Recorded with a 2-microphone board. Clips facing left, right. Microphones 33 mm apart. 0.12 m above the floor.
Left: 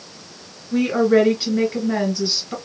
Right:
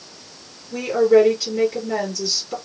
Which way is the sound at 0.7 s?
30° left (ahead or behind).